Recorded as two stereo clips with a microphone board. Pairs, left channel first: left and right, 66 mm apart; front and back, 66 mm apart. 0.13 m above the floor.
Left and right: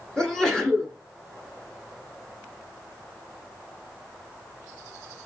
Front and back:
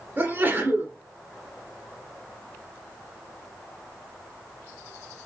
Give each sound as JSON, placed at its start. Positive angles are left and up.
{"t": 0.2, "sound": "a sneeze", "azimuth_deg": 160, "distance_m": 1.4}